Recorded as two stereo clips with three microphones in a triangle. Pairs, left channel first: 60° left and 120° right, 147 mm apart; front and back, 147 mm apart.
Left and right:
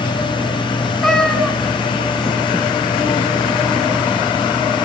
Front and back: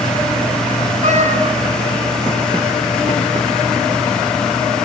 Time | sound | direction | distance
1.0 | a cat meowing | 150° left | 4.5 m